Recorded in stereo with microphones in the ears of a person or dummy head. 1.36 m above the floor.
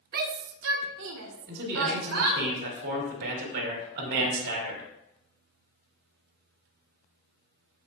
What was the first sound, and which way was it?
A shout, 50° right (ahead or behind).